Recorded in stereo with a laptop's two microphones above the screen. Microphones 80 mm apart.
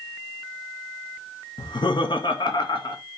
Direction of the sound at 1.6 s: 80° left.